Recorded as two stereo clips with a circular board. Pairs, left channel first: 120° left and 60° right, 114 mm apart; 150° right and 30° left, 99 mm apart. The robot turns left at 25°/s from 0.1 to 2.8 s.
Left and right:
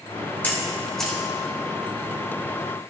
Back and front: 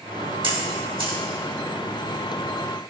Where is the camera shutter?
50° left, 1.5 m; by 1.2 s 30° left, 1.5 m.